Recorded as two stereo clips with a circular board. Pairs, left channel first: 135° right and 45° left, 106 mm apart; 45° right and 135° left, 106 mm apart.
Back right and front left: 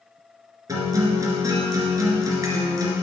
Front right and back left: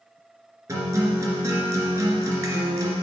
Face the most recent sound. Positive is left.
turn(degrees=80)